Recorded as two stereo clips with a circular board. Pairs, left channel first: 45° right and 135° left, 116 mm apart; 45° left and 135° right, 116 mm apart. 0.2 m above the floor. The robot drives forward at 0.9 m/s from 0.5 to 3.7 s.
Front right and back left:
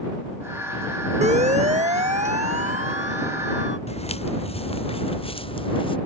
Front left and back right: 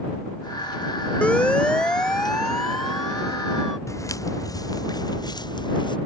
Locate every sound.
1.2 s a siren: 125° left; by 3.8 s 135° left
3.9 s footsteps: 20° right; by 6.0 s 5° right